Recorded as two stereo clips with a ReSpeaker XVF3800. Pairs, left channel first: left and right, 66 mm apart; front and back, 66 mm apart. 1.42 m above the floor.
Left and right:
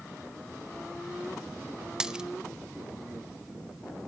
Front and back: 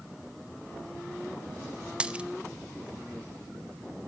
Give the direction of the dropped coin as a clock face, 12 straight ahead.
5 o'clock.